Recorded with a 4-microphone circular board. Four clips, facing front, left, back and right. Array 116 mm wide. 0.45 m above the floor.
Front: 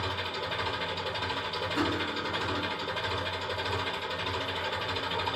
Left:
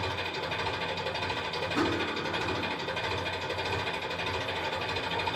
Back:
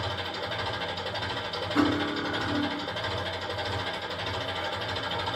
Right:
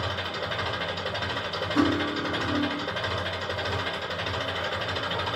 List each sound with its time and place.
0.0 s an engine running: 95° right, 1.8 m
1.8 s cutlery clinking: 155° right, 1.0 m